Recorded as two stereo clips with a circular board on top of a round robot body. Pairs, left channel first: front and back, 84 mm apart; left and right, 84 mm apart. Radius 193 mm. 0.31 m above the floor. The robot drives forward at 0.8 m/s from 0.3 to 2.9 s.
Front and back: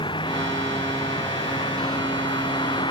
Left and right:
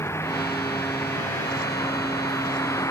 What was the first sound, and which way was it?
A vehicle, 30° left.